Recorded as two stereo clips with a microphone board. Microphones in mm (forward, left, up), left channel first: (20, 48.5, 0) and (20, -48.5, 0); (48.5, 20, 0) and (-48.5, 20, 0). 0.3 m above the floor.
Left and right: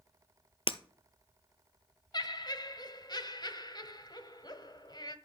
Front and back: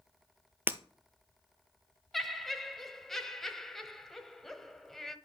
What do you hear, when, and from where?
0.7 s breaking glass: 110° left, 1.0 m
2.1 s laughter: 85° left, 1.4 m